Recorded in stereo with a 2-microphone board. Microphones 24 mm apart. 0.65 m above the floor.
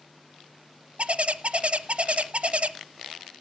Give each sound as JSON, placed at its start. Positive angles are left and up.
{"t": 1.0, "sound": "a bird", "side_deg": -60, "distance_m": 0.6}